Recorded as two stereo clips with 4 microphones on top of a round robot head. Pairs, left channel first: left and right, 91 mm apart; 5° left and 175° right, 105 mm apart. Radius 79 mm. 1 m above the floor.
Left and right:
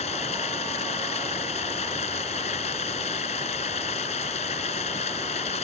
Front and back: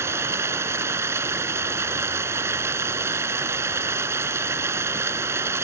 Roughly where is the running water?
Behind left.